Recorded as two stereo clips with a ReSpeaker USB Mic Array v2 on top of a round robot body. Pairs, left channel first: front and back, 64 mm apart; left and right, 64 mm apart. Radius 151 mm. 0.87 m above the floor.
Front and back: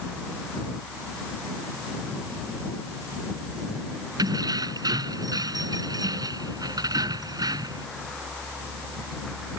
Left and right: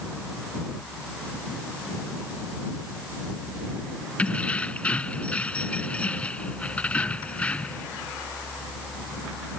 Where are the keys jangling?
160° left.